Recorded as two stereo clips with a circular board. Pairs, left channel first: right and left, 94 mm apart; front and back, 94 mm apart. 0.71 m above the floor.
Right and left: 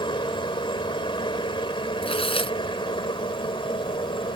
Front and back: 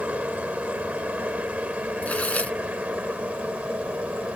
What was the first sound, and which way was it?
A helicopter, 105° right.